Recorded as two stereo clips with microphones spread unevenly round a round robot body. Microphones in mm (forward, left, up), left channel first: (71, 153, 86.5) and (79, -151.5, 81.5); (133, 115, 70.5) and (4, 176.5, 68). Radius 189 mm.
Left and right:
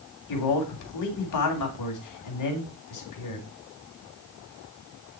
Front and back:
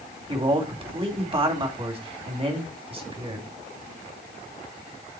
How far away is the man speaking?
About 2.5 m.